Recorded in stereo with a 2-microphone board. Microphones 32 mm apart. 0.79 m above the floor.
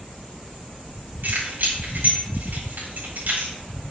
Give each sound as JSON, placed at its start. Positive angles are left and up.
{"t": 1.2, "sound": "keys jangling", "side_deg": -80, "distance_m": 3.0}